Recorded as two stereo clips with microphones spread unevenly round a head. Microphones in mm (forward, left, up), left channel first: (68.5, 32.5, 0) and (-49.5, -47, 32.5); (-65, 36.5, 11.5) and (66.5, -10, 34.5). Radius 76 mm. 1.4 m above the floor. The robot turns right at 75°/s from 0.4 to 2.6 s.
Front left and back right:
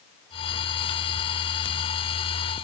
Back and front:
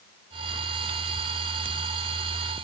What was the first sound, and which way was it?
Only background noise.